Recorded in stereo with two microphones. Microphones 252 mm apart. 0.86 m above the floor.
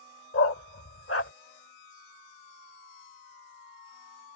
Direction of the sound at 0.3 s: 60° left (ahead or behind).